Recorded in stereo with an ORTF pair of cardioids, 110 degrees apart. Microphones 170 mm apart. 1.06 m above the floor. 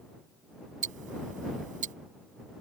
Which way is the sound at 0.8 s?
55° right.